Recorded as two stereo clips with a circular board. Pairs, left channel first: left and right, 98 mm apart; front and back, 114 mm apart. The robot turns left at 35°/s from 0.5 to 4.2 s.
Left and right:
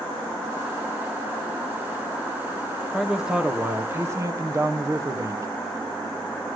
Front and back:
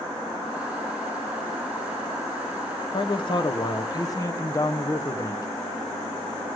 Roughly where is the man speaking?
Ahead.